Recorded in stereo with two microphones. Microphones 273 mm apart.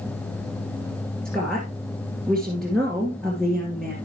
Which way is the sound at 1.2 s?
5° left (ahead or behind).